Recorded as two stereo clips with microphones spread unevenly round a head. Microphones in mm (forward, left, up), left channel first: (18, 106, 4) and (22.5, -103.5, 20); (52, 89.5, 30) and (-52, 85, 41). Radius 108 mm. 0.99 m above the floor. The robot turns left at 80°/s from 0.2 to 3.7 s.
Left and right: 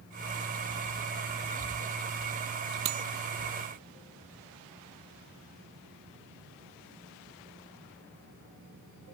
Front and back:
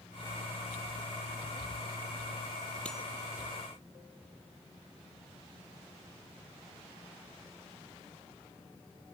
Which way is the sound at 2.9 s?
80° right.